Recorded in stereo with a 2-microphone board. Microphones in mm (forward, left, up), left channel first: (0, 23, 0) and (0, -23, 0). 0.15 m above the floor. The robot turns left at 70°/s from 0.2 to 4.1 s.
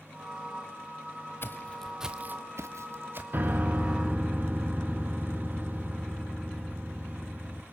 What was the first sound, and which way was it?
Footsteps, 55° left (ahead or behind).